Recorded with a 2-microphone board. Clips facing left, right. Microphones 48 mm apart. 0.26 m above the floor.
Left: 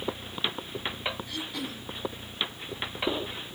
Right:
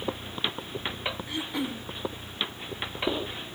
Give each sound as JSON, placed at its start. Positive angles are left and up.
{"t": 1.3, "sound": "throat clearing", "side_deg": -25, "distance_m": 1.3}